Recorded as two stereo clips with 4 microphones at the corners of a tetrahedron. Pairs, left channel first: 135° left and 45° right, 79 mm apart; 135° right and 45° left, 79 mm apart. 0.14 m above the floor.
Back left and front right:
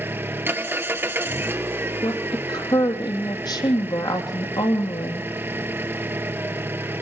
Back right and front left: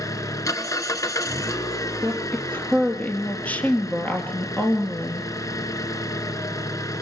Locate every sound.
0.0 s an engine running: 100° right, 1.3 m
2.0 s a woman speaking: 155° left, 3.5 m